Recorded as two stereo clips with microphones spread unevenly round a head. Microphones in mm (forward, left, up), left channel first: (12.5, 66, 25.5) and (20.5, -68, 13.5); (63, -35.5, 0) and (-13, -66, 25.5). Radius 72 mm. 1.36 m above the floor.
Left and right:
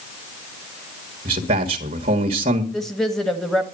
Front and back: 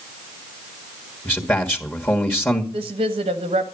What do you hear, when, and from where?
1.2 s a man speaking: 45° right, 1.6 m
2.7 s a woman speaking: straight behind, 1.7 m